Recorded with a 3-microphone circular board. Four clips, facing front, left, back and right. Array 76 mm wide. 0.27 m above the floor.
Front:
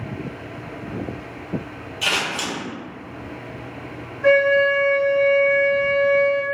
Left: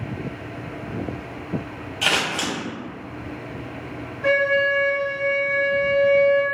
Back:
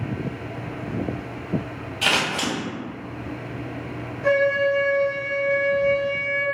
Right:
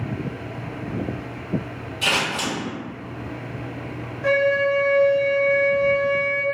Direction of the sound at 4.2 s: 20° left.